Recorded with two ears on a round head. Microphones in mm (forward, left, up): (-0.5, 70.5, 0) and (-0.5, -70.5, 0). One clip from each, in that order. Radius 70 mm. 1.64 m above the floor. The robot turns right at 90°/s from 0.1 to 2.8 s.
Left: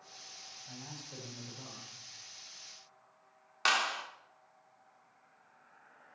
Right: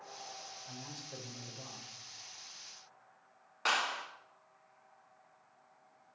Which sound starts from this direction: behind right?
A man speaking, at 0.7 s.